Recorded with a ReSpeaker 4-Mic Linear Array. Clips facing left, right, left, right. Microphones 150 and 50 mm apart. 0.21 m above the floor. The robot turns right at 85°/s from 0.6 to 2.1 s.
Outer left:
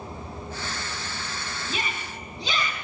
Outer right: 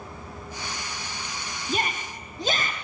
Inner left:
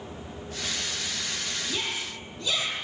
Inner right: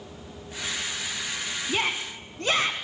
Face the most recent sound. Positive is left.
turn(degrees=-70)